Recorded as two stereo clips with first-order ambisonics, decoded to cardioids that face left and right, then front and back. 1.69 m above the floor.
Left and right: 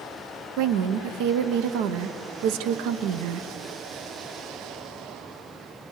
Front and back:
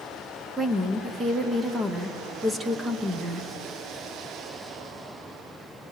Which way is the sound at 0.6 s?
105° right.